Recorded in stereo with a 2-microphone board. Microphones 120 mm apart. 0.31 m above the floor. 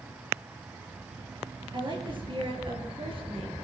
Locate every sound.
1.7 s a woman speaking: 40° right (ahead or behind), 7 m; by 3.5 s 50° right (ahead or behind), 6 m